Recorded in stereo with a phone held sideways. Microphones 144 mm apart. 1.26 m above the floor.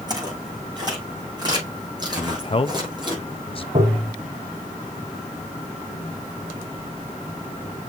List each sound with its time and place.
0.1 s footsteps: 30° right (ahead or behind), 6 m
2.2 s a man speaking: 40° left (ahead or behind), 0.6 m
3.8 s tapping: 55° right (ahead or behind), 2 m